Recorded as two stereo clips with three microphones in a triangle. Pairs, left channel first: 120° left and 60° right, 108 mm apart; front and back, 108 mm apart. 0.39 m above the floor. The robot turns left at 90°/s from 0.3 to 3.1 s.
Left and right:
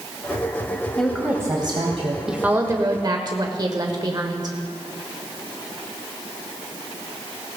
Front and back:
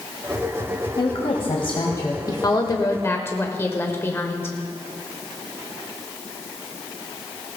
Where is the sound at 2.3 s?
20° left, 1.2 m; by 4.5 s 55° right, 1.2 m.